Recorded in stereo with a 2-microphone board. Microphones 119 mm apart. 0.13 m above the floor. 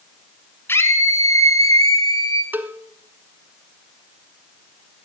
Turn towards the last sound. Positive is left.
turn(degrees=-15)  # may be behind; listen again after turning